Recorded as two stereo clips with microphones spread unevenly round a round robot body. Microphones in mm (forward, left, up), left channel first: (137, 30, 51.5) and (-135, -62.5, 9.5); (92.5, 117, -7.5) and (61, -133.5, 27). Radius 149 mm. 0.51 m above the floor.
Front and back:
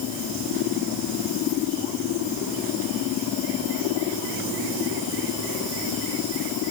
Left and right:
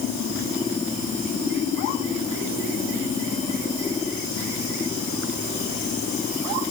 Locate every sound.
Only background noise.